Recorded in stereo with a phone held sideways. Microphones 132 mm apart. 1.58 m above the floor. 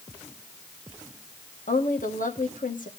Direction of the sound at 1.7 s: 90° left.